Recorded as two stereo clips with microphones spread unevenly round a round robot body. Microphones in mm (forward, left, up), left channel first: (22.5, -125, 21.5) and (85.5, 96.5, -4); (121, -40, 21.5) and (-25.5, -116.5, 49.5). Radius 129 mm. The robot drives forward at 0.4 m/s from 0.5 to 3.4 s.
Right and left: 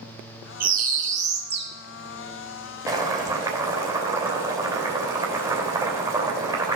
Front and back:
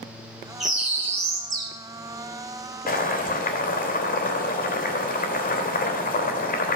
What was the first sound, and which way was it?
A bird, 110° left.